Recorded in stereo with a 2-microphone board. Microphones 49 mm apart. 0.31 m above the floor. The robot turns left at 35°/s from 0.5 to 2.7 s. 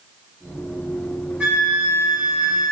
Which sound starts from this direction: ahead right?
A flute, at 1.4 s.